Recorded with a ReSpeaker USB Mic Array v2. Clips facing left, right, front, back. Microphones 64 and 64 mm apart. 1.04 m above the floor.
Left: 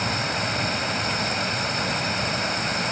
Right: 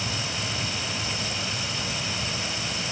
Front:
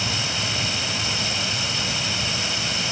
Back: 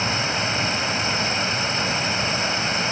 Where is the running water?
125° left.